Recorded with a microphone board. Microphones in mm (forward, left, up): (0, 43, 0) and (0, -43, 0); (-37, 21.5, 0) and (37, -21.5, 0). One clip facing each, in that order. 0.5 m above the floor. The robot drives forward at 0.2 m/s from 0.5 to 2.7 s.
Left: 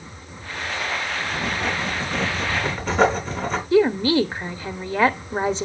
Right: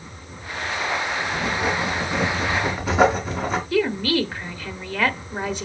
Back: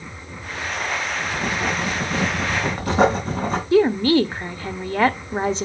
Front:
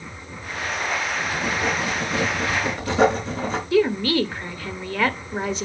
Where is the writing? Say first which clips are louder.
Right 2 dB, back 1 dB; 170° right, 3 m.